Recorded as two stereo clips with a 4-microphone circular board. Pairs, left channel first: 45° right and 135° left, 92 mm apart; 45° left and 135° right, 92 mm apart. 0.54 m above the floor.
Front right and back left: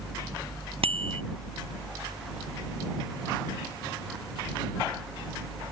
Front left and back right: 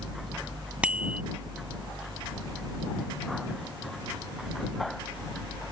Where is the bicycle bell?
150° left.